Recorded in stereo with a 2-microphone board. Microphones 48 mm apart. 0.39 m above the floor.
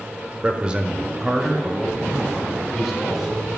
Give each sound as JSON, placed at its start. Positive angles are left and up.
{"t": 0.4, "sound": "a man speaking", "side_deg": -25, "distance_m": 0.9}